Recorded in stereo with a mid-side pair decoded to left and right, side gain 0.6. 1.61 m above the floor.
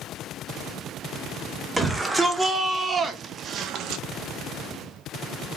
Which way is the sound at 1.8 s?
15° right.